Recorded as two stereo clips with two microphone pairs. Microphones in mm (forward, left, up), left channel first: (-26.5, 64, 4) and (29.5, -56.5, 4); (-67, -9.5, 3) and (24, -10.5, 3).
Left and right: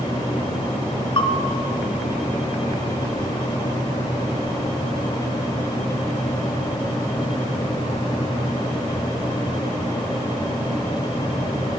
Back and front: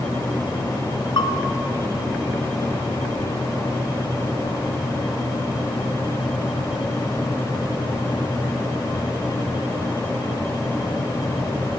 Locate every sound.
1.2 s a bell: 160° left, 3 m